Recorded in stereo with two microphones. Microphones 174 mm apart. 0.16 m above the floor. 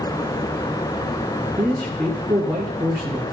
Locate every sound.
1.6 s a man speaking: 20° right (ahead or behind), 1.5 m